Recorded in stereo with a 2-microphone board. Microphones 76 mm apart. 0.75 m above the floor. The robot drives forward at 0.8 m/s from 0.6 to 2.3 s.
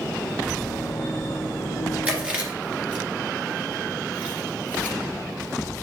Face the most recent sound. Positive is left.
turn(degrees=-15)  # may be behind; listen again after turning